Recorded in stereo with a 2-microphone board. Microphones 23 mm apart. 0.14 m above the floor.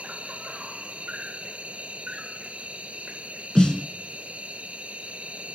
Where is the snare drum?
40° left (ahead or behind), 0.6 m.